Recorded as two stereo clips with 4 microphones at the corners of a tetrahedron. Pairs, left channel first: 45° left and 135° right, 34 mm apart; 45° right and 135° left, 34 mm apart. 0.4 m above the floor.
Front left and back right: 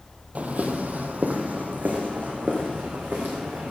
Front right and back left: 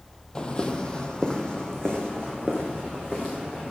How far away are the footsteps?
About 0.8 m.